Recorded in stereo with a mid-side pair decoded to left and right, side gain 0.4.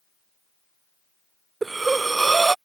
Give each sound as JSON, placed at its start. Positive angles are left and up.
{"t": 1.6, "sound": "breathing", "azimuth_deg": -30}